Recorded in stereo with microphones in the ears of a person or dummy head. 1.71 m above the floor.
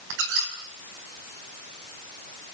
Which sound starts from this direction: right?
A squeak, at 0.1 s.